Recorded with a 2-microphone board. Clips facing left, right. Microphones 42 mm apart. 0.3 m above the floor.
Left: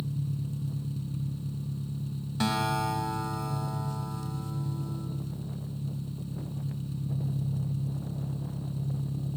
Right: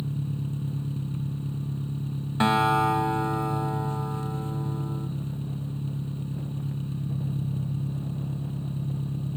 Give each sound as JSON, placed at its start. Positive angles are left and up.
{"t": 0.0, "sound": "an engine running", "side_deg": -35, "distance_m": 2.5}
{"t": 2.4, "sound": "a guitar", "side_deg": -30, "distance_m": 2.0}